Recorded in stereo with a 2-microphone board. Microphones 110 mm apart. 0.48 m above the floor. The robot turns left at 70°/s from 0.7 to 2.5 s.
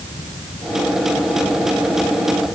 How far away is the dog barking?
I don't hear a dog barking.